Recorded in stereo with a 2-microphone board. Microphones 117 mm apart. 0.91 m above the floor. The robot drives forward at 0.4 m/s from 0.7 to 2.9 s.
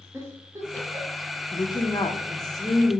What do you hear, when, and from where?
0.1 s a giggle: 25° right (ahead or behind), 1.2 m; by 1.2 s 30° right (ahead or behind), 1.0 m
1.5 s a woman speaking: 40° left (ahead or behind), 0.6 m; by 3.0 s 25° left (ahead or behind), 0.8 m